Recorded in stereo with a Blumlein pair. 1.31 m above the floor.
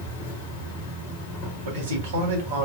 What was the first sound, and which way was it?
An insect, 45° left.